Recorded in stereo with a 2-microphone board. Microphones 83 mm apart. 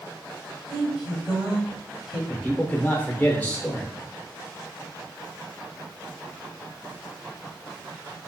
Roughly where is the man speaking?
Centre.